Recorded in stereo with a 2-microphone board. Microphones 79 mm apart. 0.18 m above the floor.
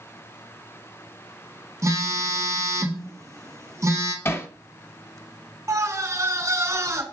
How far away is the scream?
About 1.6 m.